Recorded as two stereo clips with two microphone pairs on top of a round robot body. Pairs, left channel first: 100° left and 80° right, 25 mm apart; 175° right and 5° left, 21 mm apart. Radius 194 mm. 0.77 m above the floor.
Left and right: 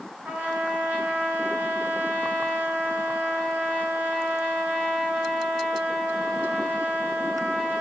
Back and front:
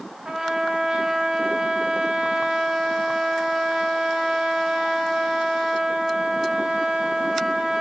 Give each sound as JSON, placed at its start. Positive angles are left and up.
{"t": 0.2, "sound": "a trumpet", "azimuth_deg": -50, "distance_m": 3.0}